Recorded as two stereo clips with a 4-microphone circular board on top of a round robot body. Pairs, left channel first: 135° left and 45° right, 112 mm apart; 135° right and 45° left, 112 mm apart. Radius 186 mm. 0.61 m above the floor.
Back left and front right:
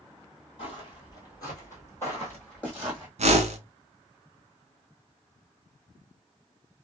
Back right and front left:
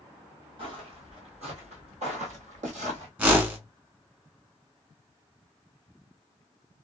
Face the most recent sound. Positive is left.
turn(degrees=-30)